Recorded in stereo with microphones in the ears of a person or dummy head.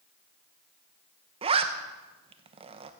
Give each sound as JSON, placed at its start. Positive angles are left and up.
{"t": 1.4, "sound": "a zipper", "side_deg": -20, "distance_m": 0.7}